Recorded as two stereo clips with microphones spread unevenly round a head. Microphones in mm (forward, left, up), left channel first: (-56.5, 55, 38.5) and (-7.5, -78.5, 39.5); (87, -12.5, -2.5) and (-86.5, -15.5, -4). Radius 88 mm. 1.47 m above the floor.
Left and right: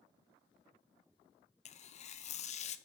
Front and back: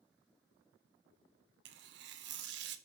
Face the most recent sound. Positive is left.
turn(degrees=150)